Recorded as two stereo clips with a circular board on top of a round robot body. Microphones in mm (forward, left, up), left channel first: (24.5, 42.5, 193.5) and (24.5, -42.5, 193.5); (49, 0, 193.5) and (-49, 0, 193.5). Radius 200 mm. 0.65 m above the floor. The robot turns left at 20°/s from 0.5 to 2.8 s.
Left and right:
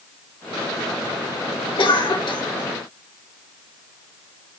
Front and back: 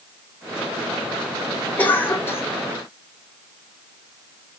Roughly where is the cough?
Left.